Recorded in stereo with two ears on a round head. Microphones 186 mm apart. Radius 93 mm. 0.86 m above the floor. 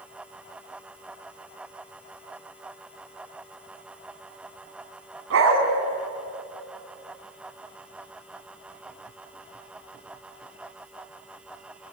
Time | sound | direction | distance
5.3 | a dog barking | 70° right (ahead or behind) | 3 m